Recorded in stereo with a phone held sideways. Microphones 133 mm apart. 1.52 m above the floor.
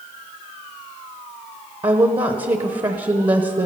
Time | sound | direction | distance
1.8 | a woman speaking | 35° right (ahead or behind) | 0.8 m